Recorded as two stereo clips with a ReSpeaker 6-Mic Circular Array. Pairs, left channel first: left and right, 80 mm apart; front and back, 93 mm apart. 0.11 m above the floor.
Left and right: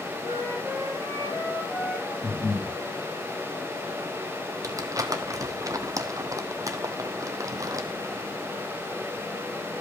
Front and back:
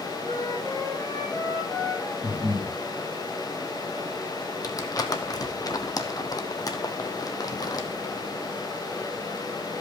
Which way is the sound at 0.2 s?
80° left.